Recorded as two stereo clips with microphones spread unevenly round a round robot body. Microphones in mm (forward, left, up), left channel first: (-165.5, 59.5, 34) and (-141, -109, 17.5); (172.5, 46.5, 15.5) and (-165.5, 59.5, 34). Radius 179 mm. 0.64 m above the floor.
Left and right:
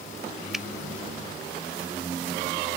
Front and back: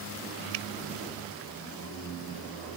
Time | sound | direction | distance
0.5 | a finger snap | 170° right | ?